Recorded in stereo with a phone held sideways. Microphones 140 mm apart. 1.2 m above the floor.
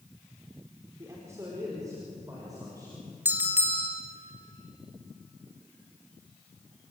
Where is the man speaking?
20° right (ahead or behind), 4.5 m; by 3.1 s 25° right (ahead or behind), 7 m.